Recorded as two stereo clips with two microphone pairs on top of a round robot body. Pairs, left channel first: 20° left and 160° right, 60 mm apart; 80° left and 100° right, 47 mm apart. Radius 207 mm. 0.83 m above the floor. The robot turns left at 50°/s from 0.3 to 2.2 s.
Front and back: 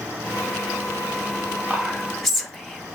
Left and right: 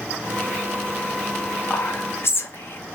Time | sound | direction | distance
1.7 | whispering | 130° left | 1.3 m